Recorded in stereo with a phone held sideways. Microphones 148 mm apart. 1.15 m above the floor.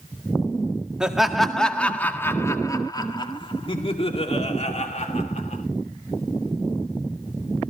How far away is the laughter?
About 1.8 m.